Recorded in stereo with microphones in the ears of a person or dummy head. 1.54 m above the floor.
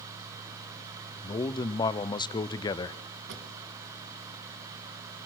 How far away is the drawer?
About 3.5 m.